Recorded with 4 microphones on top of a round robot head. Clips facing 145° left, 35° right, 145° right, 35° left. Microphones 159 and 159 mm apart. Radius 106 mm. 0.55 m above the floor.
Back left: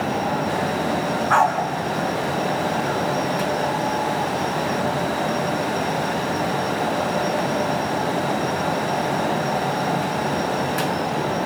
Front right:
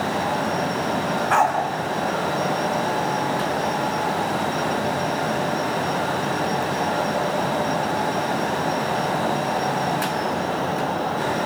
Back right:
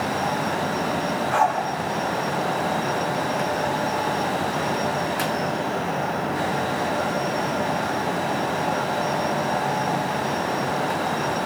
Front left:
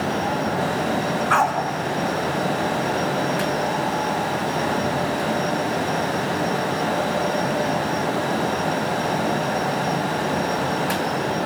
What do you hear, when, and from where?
1.3 s a dog barking: 35° left, 3 m